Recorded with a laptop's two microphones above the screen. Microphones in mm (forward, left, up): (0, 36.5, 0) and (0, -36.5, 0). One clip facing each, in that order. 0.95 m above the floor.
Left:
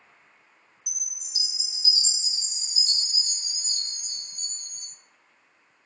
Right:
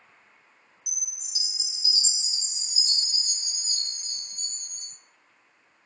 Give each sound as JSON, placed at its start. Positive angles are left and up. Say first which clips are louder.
{"t": 0.9, "sound": "a chime", "louder": "even", "side_deg": 40, "distance_m": 0.8}